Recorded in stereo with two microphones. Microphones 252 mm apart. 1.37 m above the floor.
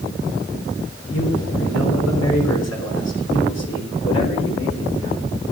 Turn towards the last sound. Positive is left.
turn(degrees=55)  # may be behind; listen again after turning